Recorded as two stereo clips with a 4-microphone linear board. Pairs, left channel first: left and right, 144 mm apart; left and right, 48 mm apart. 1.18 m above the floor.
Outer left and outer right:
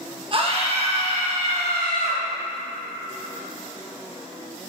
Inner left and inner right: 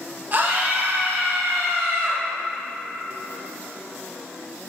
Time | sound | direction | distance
0.3 | a scream | 40° right (ahead or behind) | 1.0 m